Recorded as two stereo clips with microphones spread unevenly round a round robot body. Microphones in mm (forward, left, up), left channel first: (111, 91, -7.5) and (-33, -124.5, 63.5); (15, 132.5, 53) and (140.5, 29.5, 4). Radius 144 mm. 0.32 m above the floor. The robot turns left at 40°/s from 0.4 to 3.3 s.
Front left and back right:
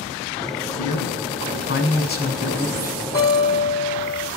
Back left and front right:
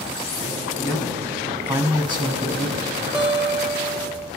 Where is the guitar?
30° left, 2.5 m; by 4.3 s 25° left, 2.5 m.